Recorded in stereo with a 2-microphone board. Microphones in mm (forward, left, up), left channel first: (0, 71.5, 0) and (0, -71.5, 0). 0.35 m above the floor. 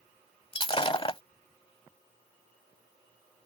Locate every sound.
0.5 s breaking glass: 40° left (ahead or behind)